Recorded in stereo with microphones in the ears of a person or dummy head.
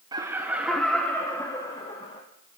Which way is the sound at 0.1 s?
25° right (ahead or behind).